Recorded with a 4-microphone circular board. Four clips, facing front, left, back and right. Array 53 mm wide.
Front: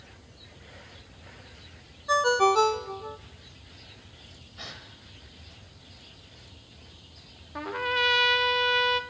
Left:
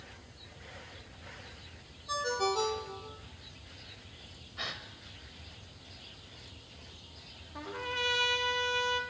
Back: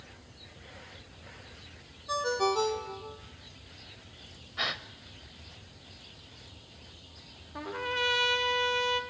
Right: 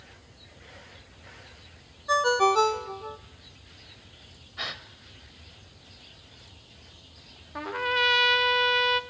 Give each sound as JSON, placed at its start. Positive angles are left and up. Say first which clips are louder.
{"t": 2.1, "sound": "a ringtone", "louder": "right 10 dB, front 7 dB", "azimuth_deg": -50, "distance_m": 0.9}
{"t": 4.6, "sound": "a gasp", "louder": "right 4 dB, back 10 dB", "azimuth_deg": -160, "distance_m": 0.9}
{"t": 7.5, "sound": "a trumpet", "louder": "right 10 dB, front 5 dB", "azimuth_deg": -60, "distance_m": 0.8}